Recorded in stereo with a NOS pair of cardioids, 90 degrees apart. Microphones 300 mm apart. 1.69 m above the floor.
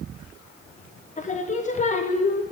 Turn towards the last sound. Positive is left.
turn(degrees=25)